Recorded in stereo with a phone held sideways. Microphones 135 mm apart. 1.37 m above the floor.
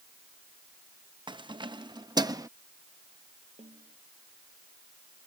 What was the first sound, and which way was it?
Keys jangling, 35° right (ahead or behind).